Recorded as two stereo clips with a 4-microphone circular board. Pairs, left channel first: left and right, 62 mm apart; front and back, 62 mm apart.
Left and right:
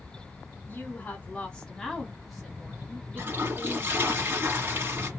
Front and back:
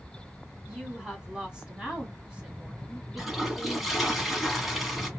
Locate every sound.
0.7 s a woman speaking: 110° left, 1.8 m; by 4.2 s 120° right, 2 m
3.2 s a toilet flushing: 95° right, 1.4 m